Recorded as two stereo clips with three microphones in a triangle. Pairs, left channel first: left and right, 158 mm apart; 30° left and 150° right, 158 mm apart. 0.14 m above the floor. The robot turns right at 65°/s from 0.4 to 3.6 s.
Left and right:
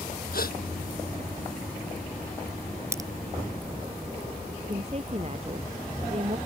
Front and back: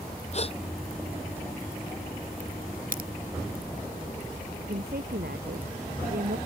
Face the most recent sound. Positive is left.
turn(degrees=-140)